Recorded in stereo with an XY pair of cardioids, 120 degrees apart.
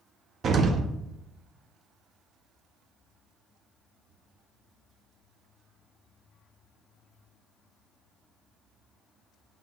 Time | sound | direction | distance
0.4 | an explosion | 45° right | 0.6 m